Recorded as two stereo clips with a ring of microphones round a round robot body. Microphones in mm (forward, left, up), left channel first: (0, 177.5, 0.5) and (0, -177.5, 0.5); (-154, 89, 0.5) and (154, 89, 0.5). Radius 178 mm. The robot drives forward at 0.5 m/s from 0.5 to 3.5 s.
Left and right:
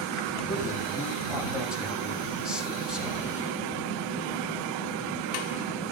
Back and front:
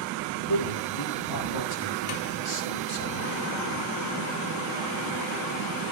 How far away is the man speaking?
About 5.5 m.